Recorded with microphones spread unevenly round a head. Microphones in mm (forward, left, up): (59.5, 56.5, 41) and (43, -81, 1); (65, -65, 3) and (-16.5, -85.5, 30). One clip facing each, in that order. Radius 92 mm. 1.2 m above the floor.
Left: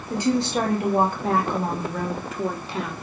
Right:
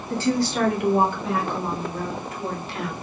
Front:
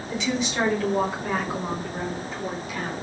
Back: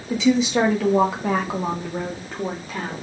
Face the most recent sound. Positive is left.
turn(degrees=115)